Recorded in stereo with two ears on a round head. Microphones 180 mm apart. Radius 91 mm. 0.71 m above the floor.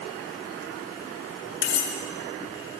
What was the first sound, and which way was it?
Cutlery clinking, 50° left (ahead or behind).